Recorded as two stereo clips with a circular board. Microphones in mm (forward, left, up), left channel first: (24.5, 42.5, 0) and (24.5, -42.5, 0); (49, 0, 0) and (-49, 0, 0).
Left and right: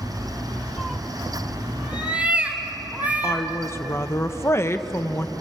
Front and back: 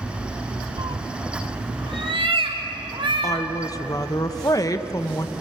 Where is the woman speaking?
40° left, 1.0 m.